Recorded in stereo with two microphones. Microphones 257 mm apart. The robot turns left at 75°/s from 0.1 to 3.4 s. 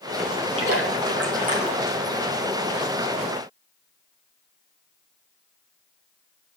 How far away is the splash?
About 3 m.